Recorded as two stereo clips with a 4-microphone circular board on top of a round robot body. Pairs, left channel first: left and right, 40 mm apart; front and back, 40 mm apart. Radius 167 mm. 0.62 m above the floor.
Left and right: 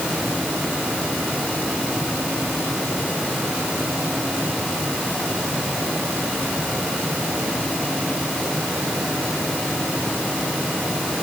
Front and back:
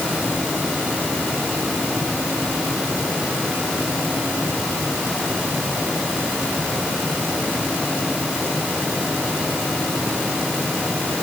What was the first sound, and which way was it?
Only background noise.